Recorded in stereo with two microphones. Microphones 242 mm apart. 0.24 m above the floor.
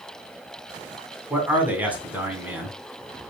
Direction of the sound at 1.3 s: 5° right (ahead or behind).